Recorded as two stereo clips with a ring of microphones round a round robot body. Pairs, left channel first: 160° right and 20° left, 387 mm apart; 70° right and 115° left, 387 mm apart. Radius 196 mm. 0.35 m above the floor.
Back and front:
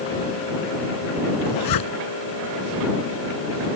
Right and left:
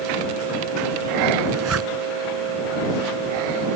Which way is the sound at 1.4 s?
165° left.